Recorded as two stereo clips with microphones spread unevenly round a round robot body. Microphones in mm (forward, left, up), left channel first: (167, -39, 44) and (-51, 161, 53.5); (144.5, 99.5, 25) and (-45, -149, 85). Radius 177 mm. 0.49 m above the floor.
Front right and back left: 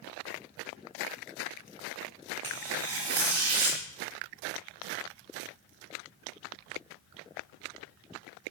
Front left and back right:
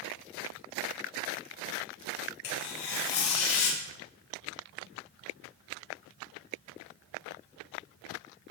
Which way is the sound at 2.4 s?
100° left.